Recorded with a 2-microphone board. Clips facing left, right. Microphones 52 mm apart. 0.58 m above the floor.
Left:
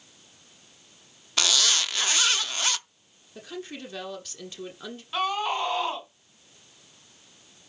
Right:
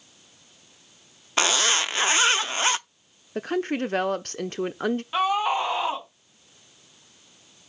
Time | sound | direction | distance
1.4 | a zipper | 30° right (ahead or behind) | 0.5 m
3.4 | a woman speaking | 55° right (ahead or behind) | 1.1 m
5.1 | a scream | 20° right (ahead or behind) | 4.5 m